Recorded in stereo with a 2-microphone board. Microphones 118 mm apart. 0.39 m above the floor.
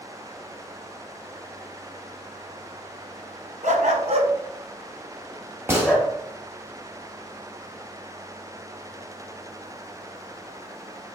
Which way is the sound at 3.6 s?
85° right.